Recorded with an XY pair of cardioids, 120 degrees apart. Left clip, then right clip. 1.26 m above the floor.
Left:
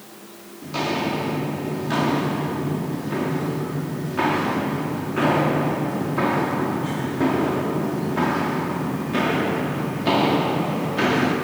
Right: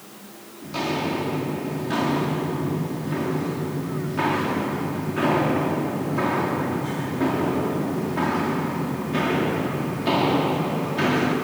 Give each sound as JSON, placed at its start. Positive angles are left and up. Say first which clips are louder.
{"t": 0.6, "sound": "footsteps", "louder": "left 2 dB", "azimuth_deg": 15, "distance_m": 7.0}